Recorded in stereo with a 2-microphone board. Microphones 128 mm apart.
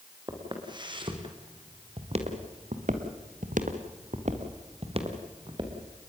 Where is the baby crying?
No baby crying in this recording.